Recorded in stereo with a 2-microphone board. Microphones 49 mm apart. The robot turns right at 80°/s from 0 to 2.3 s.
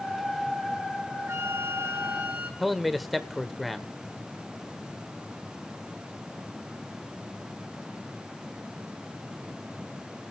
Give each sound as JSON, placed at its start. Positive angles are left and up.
{"t": 1.3, "sound": "a flute", "azimuth_deg": -110, "distance_m": 4.0}
{"t": 2.6, "sound": "a man speaking", "side_deg": 0, "distance_m": 1.2}